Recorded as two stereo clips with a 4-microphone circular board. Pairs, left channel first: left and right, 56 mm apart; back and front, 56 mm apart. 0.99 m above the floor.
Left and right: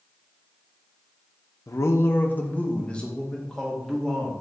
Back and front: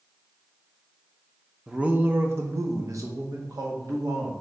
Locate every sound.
1.7 s a man speaking: 75° left, 0.5 m; by 4.3 s 5° left, 1.6 m